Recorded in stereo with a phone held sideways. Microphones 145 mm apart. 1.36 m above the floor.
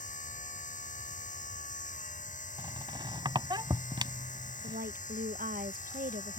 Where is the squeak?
35° right (ahead or behind).